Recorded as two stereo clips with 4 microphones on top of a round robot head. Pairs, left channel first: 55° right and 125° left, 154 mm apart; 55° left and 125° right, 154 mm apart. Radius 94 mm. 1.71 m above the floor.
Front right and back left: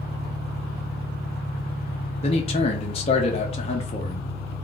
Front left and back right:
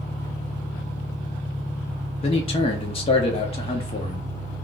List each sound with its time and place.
0.0 s an engine running: 100° left, 1.3 m
2.2 s a man speaking: straight ahead, 0.5 m